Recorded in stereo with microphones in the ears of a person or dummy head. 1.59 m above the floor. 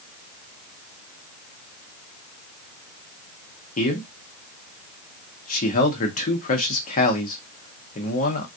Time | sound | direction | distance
3.8 | a man speaking | 50° left (ahead or behind) | 0.9 m